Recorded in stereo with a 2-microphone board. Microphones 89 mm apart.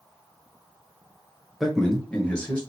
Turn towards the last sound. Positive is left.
turn(degrees=15)  # may be behind; listen again after turning